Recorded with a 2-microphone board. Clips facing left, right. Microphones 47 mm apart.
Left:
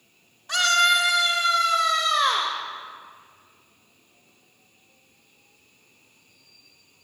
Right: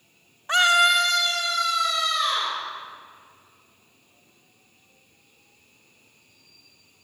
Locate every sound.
0.5 s a scream: 30° right (ahead or behind), 1.0 m; by 2.5 s 60° left (ahead or behind), 2.0 m